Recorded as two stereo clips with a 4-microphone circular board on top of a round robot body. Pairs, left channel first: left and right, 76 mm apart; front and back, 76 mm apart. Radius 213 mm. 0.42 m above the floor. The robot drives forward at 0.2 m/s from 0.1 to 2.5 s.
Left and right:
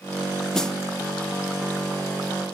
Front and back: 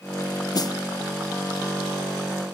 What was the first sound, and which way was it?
A snare drum, 10° left.